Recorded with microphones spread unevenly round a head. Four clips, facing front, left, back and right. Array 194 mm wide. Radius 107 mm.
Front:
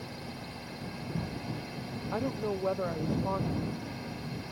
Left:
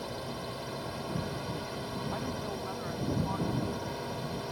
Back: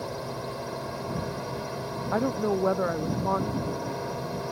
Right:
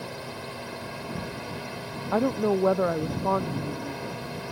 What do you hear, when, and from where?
0.0 s a drone: 170° right
2.1 s a woman speaking: 105° right